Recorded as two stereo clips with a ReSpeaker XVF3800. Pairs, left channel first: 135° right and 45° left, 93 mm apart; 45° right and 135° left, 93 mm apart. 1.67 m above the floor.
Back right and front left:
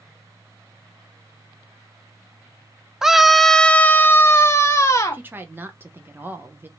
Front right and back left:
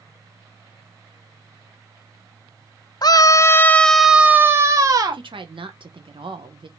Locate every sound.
3.0 s a scream: 40° right, 0.7 m; by 5.2 s 170° left, 1.0 m
5.1 s a woman speaking: 110° left, 1.2 m